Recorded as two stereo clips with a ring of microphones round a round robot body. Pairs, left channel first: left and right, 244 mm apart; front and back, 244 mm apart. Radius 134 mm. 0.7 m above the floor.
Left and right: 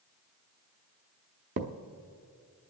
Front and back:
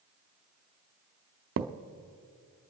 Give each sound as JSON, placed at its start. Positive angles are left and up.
{"t": 1.6, "sound": "a thud", "azimuth_deg": -140, "distance_m": 0.6}